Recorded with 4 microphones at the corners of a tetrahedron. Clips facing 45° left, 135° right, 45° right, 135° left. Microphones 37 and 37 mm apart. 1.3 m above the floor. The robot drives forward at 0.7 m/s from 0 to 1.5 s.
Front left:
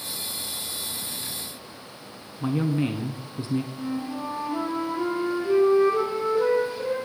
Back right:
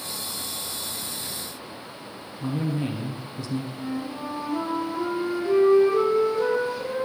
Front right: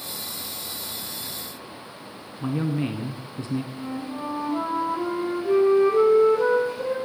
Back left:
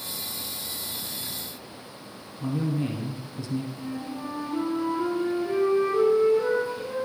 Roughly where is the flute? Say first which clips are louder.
Front left 1 dB, front right 2 dB; ahead right.